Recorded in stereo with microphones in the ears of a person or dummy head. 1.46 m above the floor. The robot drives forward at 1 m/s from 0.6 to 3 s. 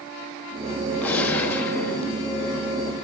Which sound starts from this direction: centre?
A gunshot, at 1.0 s.